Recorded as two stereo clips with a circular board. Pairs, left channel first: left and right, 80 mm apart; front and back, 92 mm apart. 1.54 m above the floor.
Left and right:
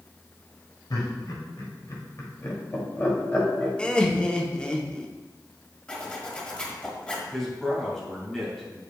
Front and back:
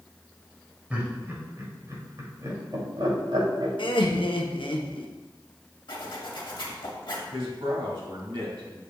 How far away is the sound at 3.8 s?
About 0.8 m.